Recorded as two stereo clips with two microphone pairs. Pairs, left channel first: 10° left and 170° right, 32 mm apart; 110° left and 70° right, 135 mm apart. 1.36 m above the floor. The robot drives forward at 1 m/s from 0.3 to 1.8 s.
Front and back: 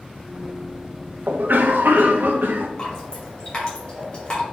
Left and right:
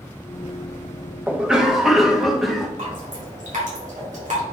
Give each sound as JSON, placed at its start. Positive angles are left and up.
{"t": 1.3, "sound": "a cough", "azimuth_deg": -150, "distance_m": 1.2}
{"t": 2.8, "sound": "dripping", "azimuth_deg": -50, "distance_m": 3.5}